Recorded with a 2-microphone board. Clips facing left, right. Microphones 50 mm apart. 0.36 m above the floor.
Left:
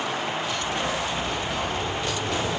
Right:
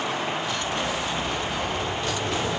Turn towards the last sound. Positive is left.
turn(degrees=15)  # may be behind; listen again after turning